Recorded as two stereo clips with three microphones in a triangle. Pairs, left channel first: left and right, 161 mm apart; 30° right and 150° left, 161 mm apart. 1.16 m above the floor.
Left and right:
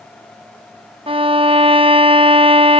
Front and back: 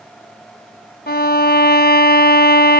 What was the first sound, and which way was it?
A violin, 35° right.